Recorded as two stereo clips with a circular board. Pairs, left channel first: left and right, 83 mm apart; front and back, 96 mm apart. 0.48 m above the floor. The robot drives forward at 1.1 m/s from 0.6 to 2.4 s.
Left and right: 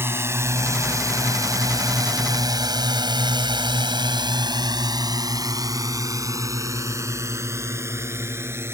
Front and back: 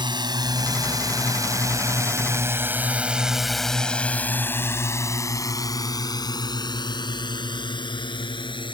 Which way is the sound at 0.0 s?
150° right.